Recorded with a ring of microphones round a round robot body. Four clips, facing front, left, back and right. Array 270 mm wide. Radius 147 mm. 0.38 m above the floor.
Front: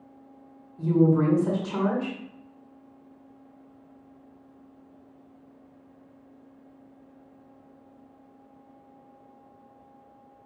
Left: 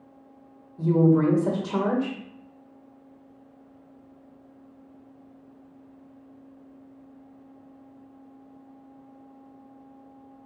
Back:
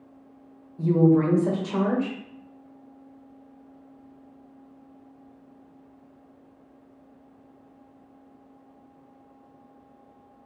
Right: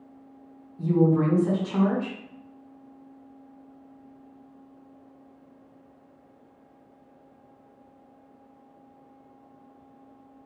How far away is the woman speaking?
About 1.3 m.